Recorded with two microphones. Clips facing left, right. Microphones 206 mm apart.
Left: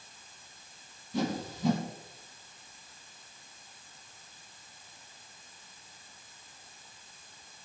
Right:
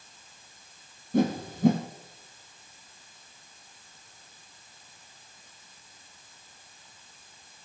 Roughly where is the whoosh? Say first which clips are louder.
Right 7 dB; right.